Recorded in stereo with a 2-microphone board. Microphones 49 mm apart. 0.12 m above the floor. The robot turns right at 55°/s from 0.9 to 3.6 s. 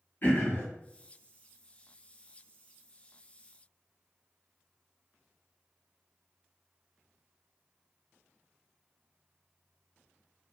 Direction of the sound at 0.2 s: 45° left (ahead or behind).